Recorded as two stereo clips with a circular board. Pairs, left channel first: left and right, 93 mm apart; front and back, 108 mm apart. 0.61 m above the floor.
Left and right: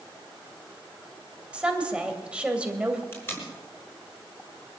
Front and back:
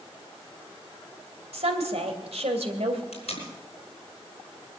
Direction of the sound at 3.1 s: 25° left.